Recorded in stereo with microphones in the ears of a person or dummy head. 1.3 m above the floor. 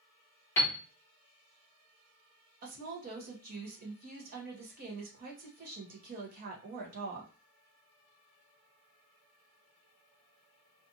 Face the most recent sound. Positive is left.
turn(degrees=-45)  # may be behind; listen again after turning